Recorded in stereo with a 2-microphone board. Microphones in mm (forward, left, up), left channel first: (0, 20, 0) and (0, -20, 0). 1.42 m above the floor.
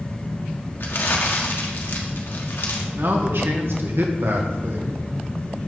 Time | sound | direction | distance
0.8 | crumpling | 65° left (ahead or behind) | 1.6 m
3.0 | a man speaking | 70° right (ahead or behind) | 1.6 m